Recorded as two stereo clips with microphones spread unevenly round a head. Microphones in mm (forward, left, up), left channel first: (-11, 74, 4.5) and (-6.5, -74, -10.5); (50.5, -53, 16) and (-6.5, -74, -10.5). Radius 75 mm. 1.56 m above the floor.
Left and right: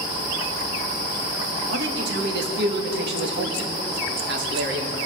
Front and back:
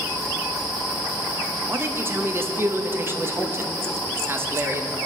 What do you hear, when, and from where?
1.7 s a man speaking: 100° right, 1.5 m